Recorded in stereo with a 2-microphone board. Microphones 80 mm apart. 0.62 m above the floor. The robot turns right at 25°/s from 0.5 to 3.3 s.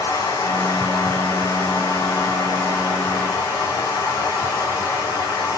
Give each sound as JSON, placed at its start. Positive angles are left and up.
{"t": 0.0, "sound": "running water", "azimuth_deg": 50, "distance_m": 4.0}